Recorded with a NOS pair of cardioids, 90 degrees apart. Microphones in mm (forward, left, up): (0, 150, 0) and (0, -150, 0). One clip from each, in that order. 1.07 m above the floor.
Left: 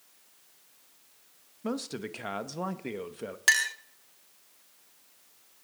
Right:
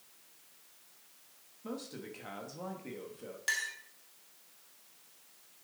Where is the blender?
No blender in this recording.